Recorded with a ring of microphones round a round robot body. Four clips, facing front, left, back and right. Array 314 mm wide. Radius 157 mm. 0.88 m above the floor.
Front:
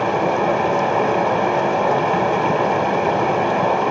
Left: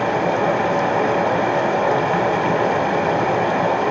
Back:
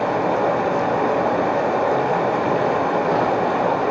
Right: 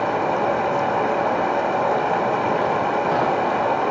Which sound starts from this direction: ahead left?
Running water, at 0.0 s.